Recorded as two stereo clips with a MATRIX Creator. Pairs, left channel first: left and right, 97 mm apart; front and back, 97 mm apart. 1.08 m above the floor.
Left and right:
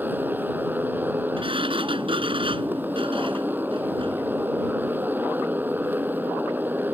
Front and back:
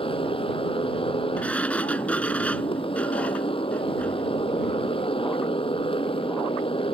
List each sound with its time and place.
0.0 s a motorcycle: 20° right
1.4 s a sliding door: 75° right